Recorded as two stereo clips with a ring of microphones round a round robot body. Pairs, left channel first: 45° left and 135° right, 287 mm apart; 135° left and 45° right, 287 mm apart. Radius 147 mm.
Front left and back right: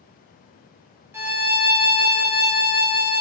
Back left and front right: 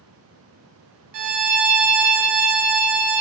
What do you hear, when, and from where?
1.1 s a violin: 55° right, 0.6 m